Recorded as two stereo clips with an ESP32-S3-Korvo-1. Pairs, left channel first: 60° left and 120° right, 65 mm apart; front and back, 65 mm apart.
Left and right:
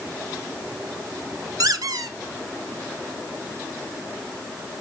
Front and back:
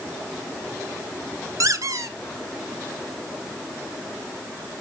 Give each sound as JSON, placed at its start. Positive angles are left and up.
{"t": 1.6, "sound": "a squeak", "azimuth_deg": -145, "distance_m": 0.6}